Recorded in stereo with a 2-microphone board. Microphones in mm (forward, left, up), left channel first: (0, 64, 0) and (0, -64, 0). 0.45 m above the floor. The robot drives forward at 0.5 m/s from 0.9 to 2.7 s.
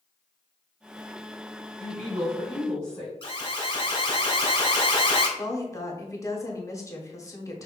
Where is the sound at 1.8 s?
15° left (ahead or behind), 1.9 m; by 3.1 s 10° left (ahead or behind), 2.5 m.